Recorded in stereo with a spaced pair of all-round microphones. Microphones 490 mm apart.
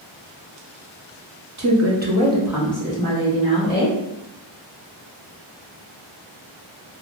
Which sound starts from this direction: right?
A woman speaking, at 1.6 s.